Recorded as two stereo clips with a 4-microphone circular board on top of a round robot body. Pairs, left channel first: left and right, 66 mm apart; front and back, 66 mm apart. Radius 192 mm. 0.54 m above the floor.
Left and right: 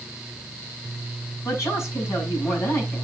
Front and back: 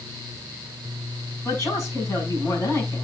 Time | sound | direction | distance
1.4 | a woman speaking | 45° left | 6.5 m